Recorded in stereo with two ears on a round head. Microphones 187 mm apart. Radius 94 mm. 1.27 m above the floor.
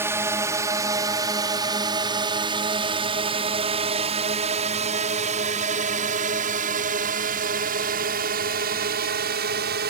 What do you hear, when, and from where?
0.0 s a drone: 10° right (ahead or behind); by 9.9 s 50° right (ahead or behind)